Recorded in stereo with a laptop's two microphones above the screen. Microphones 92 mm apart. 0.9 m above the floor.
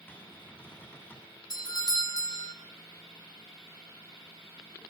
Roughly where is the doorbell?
Left.